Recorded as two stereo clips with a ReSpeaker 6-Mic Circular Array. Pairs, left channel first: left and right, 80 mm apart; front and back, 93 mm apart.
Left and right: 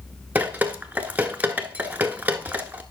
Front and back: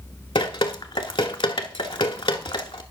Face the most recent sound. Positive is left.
turn(degrees=-20)